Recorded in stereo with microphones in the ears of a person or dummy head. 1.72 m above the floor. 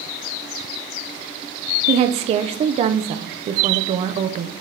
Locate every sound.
1.9 s a woman speaking: 35° right (ahead or behind), 0.7 m